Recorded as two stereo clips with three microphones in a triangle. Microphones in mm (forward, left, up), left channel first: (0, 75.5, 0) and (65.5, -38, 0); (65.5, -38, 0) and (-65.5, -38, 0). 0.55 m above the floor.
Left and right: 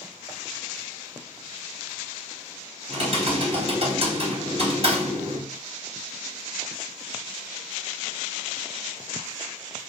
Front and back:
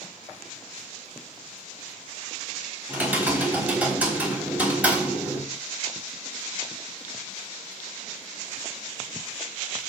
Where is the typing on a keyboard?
100° right, 3.5 m.